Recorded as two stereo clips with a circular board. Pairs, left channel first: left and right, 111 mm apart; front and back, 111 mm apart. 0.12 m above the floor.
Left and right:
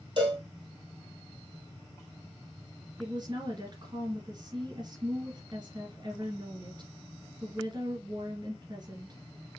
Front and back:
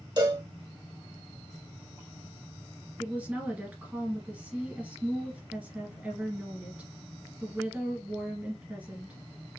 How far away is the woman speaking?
About 2 m.